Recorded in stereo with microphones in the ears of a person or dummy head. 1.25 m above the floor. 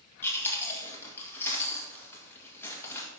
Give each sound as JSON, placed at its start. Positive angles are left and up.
{"t": 0.2, "sound": "chewing", "side_deg": 15, "distance_m": 2.0}